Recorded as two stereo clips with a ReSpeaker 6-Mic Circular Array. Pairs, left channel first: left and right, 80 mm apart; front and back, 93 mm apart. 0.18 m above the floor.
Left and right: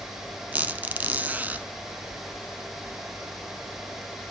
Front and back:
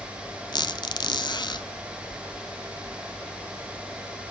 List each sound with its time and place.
0.5 s a squeak: 20° right, 0.5 m